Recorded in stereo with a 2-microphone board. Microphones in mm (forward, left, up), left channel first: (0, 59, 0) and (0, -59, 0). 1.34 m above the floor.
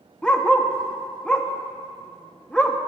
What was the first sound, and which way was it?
A dog barking, 10° left (ahead or behind).